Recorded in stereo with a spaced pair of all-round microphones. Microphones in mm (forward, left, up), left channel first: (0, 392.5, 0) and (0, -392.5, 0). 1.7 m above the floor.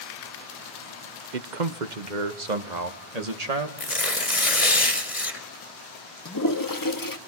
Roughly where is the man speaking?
Right.